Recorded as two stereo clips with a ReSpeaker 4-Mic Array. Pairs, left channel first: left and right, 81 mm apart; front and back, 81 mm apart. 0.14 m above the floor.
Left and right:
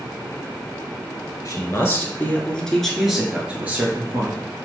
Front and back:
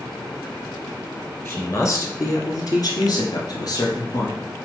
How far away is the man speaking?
About 2 m.